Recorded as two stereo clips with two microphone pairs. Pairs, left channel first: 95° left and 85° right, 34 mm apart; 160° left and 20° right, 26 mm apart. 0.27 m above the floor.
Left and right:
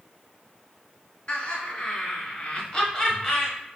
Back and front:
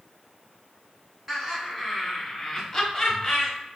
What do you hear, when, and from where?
1.3 s laughter: 65° left, 1.5 m; by 3.5 s 160° left, 1.1 m